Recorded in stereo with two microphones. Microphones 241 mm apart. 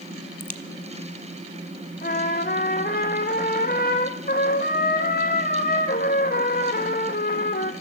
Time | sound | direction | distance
0.4 | a crack | 35° left (ahead or behind) | 1.1 m
2.0 | a trumpet | 40° left (ahead or behind) | 1.6 m